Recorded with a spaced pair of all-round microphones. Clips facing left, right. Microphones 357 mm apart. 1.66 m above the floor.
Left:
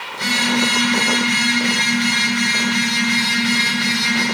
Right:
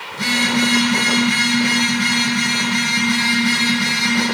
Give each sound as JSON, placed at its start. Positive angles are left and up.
{"t": 0.1, "sound": "a phone buzzing", "side_deg": -65, "distance_m": 8.5}